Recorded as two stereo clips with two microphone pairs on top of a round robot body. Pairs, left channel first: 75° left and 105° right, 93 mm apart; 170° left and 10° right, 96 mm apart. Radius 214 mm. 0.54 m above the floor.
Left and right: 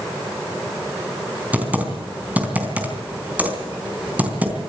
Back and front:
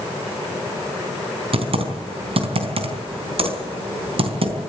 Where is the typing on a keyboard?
35° right, 4 m.